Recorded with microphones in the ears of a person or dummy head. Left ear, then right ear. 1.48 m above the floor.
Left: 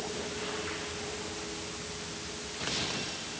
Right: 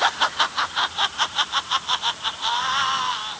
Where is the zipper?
I don't hear a zipper.